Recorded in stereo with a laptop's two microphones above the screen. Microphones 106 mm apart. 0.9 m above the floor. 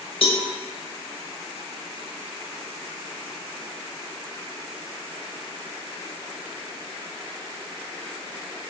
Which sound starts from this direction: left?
A cowbell, at 0.2 s.